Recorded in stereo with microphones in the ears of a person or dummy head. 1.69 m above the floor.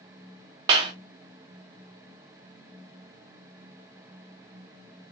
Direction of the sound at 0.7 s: 20° right (ahead or behind).